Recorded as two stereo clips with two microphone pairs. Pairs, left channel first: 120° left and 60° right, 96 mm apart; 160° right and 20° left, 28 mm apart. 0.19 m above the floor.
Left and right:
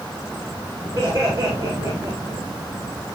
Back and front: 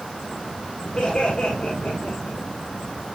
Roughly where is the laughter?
Behind right.